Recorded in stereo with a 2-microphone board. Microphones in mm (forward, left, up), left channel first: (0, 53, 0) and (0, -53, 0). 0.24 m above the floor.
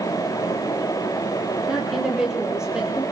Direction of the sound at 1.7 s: 5° right (ahead or behind).